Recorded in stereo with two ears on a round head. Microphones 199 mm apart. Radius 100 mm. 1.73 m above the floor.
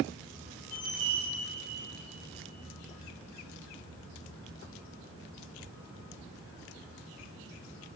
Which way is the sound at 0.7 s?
15° left (ahead or behind).